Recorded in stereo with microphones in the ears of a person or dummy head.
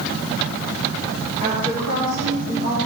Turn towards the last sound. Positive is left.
turn(degrees=-50)  # may be behind; listen again after turning